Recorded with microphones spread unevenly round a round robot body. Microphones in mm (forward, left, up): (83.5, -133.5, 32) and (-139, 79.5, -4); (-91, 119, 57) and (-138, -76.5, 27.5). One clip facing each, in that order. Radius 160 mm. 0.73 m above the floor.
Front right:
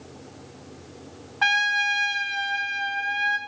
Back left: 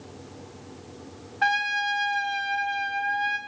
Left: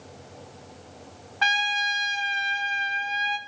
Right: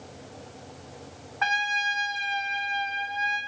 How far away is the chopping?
No chopping in this recording.